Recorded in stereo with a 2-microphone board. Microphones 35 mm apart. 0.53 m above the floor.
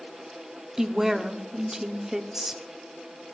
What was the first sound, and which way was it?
A woman speaking, 15° right (ahead or behind).